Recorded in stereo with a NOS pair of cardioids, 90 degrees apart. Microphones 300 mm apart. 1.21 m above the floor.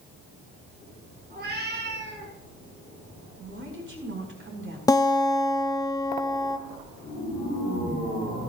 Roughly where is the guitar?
Ahead.